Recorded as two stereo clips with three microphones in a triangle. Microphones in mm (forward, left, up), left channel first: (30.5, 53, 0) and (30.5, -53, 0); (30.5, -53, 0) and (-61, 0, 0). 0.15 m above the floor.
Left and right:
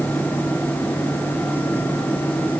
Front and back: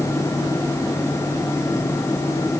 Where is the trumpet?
No trumpet in this recording.